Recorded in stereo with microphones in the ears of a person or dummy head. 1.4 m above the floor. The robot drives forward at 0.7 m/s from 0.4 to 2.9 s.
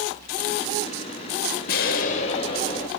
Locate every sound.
1.7 s an explosion: 50° left (ahead or behind), 0.6 m; by 2.9 s 25° left (ahead or behind), 1.0 m